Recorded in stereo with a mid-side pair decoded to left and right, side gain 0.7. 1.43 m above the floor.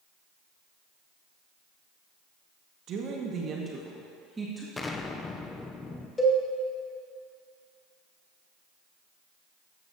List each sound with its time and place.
2.9 s a woman speaking: 50° right, 2.0 m; by 4.7 s 10° right, 2 m
4.8 s an explosion: 20° left, 0.8 m
6.2 s a cowbell: 20° left, 2.0 m